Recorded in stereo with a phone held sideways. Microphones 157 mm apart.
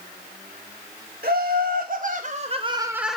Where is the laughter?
70° right (ahead or behind), 1.9 m; by 3.2 s 5° left (ahead or behind), 0.7 m.